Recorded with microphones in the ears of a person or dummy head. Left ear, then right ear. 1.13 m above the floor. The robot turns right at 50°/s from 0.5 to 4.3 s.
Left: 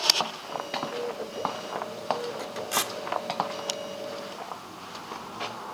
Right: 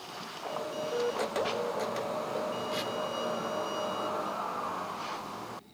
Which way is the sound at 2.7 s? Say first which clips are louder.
Left 5 dB; 45° left (ahead or behind).